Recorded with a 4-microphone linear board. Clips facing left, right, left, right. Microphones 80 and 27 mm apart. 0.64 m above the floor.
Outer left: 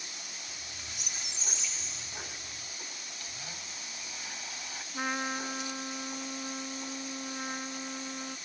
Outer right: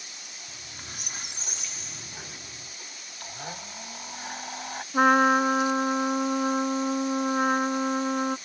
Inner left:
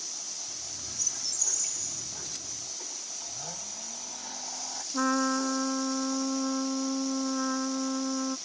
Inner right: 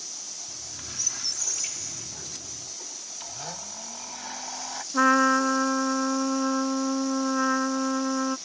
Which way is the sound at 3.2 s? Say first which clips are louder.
Outer right 11 dB, inner right 2 dB; 50° right (ahead or behind).